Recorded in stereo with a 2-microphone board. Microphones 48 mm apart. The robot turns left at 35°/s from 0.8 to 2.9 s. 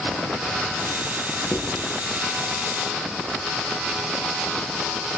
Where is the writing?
45° left (ahead or behind), 7 m; by 1.8 s 35° left (ahead or behind), 7 m.